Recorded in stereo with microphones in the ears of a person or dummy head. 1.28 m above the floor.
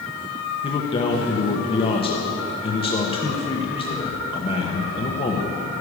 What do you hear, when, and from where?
0.6 s a man speaking: 30° left (ahead or behind), 1.2 m